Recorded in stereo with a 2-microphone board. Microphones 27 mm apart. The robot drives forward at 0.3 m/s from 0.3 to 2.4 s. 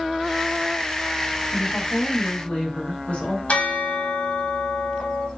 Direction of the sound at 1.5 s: 50° left (ahead or behind).